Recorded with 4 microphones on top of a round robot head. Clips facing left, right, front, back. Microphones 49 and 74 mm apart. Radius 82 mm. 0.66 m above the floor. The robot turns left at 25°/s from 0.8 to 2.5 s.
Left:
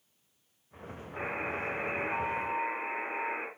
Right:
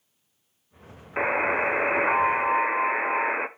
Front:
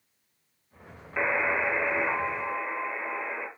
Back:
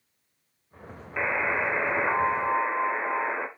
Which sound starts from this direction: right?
A buzzer, at 1.2 s.